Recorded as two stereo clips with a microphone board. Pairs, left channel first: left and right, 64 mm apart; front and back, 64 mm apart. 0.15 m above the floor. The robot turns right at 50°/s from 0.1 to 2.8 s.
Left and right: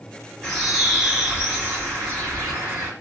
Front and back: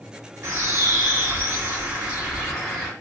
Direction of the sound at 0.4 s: 160° left.